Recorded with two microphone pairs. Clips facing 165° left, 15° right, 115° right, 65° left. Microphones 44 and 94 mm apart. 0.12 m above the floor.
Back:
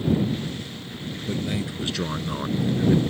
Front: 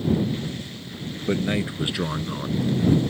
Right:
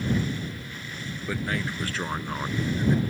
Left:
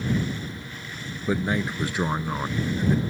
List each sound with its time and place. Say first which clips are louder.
1.3 s a man speaking: front 5 dB, left 5 dB; 5° left; by 3.0 s 150° left